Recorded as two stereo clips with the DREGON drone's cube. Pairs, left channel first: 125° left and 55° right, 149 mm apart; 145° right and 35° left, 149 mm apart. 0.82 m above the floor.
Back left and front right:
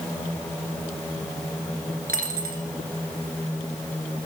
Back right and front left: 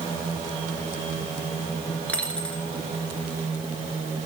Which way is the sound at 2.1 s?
65° right.